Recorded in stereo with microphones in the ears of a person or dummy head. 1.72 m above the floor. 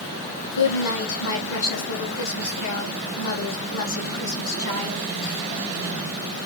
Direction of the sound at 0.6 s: 65° left (ahead or behind).